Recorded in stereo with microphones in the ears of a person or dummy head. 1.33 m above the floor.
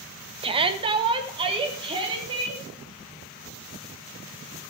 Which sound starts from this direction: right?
A shout, at 0.4 s.